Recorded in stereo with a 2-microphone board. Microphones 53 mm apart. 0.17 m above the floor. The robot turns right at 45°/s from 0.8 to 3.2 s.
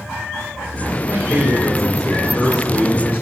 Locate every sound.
1.1 s a man speaking: 50° right, 3 m; by 3.2 s 50° left, 3 m